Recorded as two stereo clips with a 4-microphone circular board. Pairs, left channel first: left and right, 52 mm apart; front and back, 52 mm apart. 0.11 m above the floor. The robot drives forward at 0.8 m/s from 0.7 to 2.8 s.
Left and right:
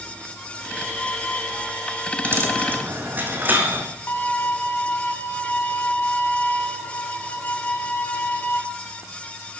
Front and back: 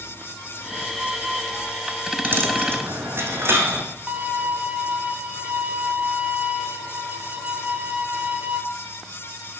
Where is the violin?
130° left, 1.4 m.